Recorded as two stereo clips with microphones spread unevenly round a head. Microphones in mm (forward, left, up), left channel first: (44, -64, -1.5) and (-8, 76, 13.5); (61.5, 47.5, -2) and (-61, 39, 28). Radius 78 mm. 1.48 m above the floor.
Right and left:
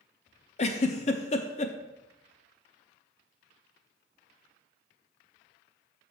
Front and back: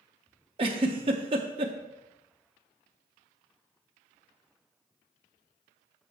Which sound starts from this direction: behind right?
A giggle, at 0.6 s.